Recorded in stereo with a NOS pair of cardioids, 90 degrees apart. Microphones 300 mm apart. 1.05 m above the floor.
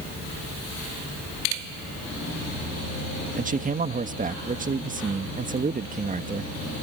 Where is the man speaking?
30° right.